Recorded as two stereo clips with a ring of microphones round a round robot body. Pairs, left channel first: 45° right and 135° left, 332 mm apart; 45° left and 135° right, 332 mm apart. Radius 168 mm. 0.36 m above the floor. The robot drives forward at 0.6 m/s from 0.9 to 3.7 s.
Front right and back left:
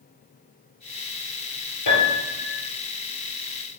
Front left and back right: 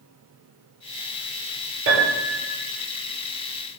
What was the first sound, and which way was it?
A piano, 80° right.